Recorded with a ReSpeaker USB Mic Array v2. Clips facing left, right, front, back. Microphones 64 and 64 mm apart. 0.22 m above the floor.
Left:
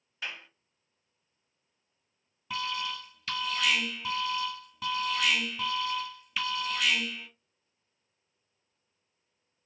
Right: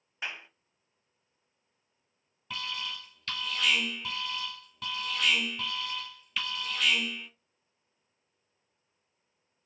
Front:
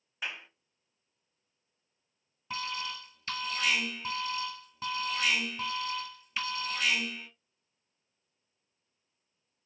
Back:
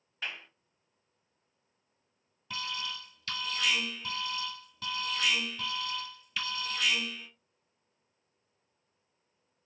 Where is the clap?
60° right, 0.8 m.